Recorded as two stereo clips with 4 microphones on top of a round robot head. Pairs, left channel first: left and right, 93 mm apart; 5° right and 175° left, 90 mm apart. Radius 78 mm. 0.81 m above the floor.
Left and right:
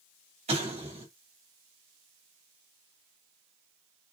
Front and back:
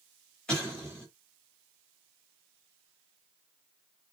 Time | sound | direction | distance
0.5 | an explosion | 85° right | 3 m